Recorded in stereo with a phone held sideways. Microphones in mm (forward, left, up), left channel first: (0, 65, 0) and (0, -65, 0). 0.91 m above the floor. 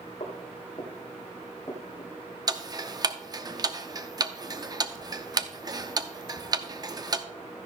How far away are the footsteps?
About 2 m.